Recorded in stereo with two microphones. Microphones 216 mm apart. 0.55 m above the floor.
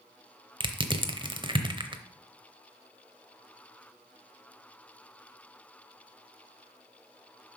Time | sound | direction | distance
0.6 | crushing | 20° right (ahead or behind) | 0.8 m